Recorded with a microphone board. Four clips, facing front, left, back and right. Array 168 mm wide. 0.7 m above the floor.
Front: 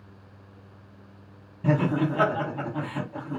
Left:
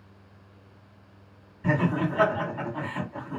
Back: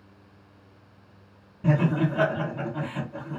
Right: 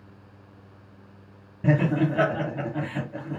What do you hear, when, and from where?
1.6 s laughter: 95° right, 2.5 m